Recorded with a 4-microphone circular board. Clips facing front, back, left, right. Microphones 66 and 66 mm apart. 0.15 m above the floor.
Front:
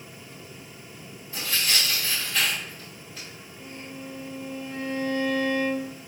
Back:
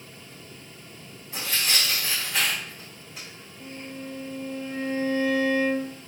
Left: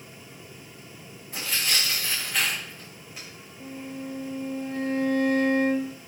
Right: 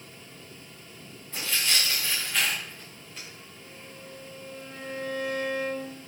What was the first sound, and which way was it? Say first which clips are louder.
Tearing paper: even, even; 170° left.